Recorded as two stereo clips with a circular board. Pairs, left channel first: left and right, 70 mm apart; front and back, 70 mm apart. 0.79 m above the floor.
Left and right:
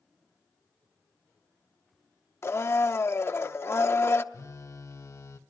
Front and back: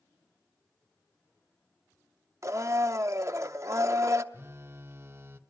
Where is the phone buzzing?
130° left, 0.8 m.